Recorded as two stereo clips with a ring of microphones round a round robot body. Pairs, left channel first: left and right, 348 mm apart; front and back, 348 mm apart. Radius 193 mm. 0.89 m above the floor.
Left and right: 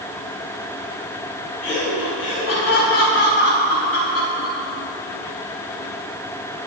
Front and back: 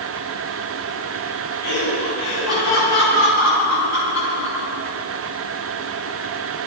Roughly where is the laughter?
Ahead left.